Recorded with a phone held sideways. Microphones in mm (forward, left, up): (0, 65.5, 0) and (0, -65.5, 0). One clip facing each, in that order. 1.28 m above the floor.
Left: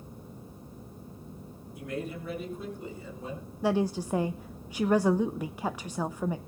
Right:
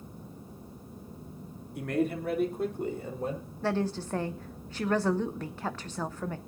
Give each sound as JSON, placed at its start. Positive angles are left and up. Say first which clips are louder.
{"t": 1.8, "sound": "a man speaking", "louder": "right 7 dB", "side_deg": -65, "distance_m": 2.5}
{"t": 3.6, "sound": "a woman speaking", "louder": "left 3 dB", "side_deg": 10, "distance_m": 0.5}